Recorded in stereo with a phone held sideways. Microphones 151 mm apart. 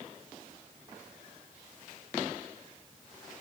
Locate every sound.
Only background noise.